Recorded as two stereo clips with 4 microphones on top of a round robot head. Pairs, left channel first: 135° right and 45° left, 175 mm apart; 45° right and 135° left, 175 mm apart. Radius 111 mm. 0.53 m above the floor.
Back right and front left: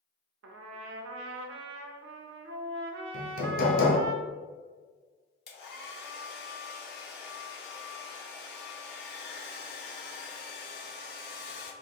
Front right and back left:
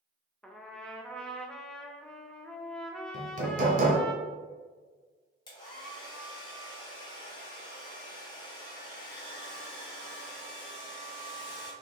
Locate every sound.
0.4 s a trumpet: 40° left, 0.6 m
3.1 s hammering: 175° right, 0.9 m
5.5 s a hair dryer: 110° right, 1.2 m